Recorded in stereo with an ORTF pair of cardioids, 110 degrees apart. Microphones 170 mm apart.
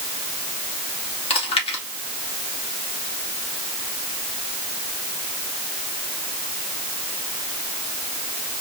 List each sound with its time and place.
1.3 s chewing: 35° left, 2.5 m